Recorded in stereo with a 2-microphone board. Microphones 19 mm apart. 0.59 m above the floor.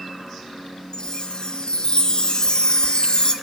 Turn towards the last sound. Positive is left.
turn(degrees=35)  # may be behind; listen again after turning